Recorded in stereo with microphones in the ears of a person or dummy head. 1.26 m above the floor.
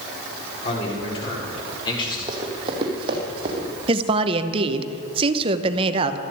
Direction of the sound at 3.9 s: 30° right (ahead or behind).